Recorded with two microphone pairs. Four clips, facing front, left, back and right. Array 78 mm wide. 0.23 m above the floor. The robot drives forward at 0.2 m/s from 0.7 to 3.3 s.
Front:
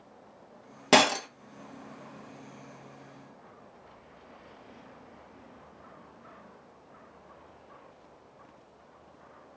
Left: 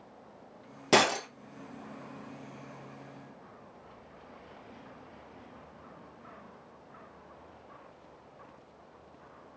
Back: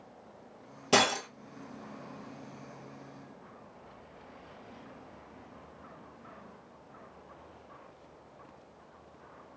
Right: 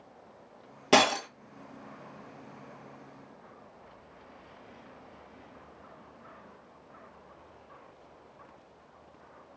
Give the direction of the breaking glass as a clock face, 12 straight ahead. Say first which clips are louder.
Right 2 dB, front 4 dB; 12 o'clock.